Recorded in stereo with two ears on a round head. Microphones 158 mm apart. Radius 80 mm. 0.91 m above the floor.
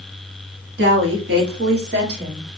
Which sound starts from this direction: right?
A woman speaking, at 0.8 s.